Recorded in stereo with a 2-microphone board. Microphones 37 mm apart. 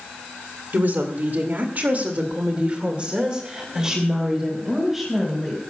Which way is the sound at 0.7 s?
55° right (ahead or behind).